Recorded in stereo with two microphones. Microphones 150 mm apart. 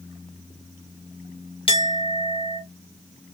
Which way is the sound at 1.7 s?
40° left (ahead or behind).